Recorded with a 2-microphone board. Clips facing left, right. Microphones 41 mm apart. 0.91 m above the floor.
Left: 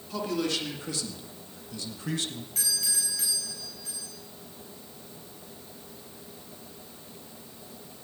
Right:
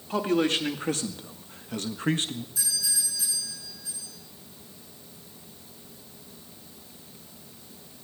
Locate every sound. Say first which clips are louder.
0.1 s a man speaking: right 5 dB; 35° right (ahead or behind), 2.5 m; by 2.5 s 25° right (ahead or behind), 1.3 m
2.5 s a doorbell: left 2 dB; 60° left (ahead or behind), 8.5 m